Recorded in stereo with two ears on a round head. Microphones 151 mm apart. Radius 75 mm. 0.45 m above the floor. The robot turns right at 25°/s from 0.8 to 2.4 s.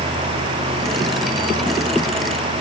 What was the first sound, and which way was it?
Only background noise.